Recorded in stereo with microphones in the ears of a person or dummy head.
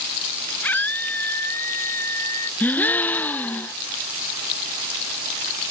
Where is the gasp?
10° left (ahead or behind).